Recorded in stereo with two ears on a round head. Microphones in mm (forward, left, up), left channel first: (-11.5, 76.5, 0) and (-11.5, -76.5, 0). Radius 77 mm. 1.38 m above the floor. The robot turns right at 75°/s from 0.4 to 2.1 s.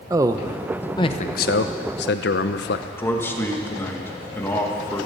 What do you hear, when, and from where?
0.1 s a man speaking: 20° right, 0.7 m; by 2.9 s 110° left, 0.7 m
3.0 s a man speaking: 15° left (ahead or behind), 1.6 m